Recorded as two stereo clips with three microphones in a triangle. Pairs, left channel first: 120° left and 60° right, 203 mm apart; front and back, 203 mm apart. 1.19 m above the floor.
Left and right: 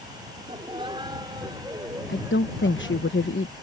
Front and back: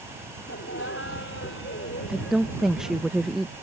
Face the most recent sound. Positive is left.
turn(degrees=95)